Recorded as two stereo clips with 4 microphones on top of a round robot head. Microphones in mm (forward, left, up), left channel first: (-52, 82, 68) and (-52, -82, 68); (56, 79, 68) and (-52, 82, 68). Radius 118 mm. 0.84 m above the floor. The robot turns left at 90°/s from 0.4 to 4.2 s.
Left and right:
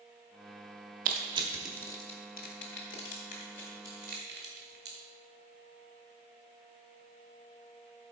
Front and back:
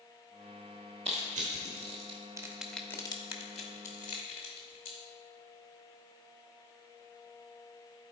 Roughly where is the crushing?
Behind right.